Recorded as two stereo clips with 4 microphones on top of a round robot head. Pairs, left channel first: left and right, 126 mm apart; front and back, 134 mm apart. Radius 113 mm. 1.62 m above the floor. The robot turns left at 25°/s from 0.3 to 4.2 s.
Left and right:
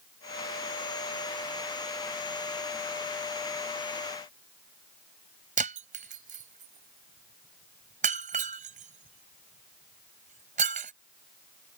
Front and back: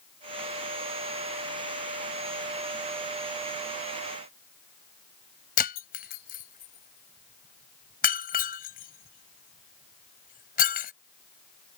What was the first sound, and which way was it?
Breaking glass, 40° right.